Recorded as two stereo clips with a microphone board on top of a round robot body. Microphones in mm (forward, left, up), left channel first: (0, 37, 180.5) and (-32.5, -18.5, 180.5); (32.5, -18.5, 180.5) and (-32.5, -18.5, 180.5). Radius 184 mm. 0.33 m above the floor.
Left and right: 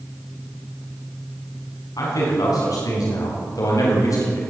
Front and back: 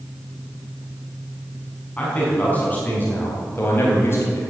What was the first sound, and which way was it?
A man speaking, 70° left.